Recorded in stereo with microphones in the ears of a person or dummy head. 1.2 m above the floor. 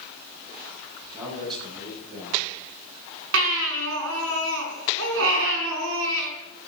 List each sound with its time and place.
1.1 s a man speaking: 25° right (ahead or behind), 7.5 m
3.3 s a baby crying: 75° right (ahead or behind), 4.5 m